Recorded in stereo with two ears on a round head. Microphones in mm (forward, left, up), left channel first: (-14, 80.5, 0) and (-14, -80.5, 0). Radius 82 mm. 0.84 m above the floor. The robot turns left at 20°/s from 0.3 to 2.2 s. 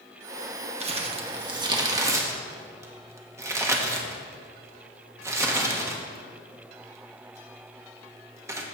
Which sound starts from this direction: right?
Crumpling, at 0.8 s.